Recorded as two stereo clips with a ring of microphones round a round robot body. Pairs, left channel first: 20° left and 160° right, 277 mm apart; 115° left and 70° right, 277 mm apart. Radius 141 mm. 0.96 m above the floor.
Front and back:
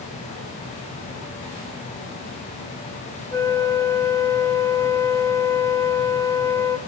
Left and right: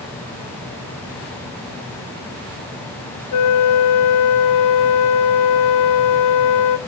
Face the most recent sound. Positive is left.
turn(degrees=100)